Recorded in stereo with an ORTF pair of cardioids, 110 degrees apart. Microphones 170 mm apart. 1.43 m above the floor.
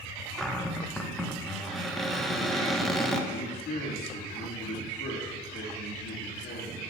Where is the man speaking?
55° left, 2.5 m.